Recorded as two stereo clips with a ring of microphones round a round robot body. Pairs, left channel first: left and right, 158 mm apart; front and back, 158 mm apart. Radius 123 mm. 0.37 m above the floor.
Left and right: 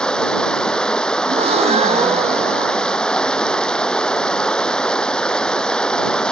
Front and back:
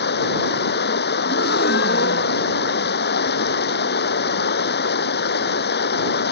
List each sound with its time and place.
0.0 s running water: 5° left
1.2 s a gasp: 40° right